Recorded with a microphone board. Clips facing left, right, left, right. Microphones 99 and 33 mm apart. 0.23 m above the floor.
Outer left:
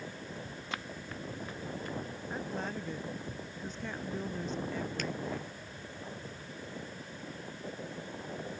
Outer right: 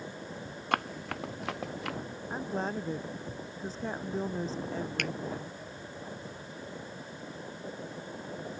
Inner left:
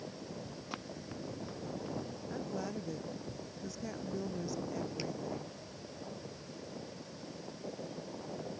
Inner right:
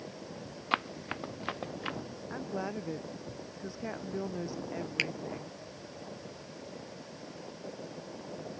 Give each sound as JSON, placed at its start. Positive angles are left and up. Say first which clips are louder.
{"t": 0.7, "sound": "running footsteps", "louder": "outer right 11 dB, inner right 13 dB", "side_deg": -60}
{"t": 2.3, "sound": "a woman speaking", "louder": "outer right 5 dB, inner right 3 dB", "side_deg": -35}
{"t": 5.0, "sound": "a finger snap", "louder": "outer right 1 dB, inner right 13 dB", "side_deg": -65}